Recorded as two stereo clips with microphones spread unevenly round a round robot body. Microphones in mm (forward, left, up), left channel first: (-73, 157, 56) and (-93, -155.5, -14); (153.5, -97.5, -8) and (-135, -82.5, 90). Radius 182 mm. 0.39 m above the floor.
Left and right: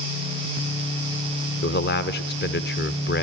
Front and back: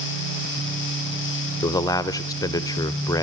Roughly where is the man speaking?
Ahead left.